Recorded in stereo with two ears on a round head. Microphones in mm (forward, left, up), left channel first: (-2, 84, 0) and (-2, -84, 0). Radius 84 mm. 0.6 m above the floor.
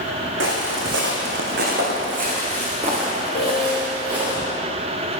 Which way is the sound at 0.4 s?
75° right (ahead or behind).